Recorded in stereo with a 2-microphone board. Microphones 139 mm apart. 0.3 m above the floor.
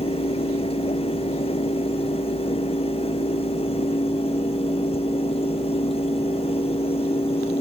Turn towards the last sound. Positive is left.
No sound to turn to.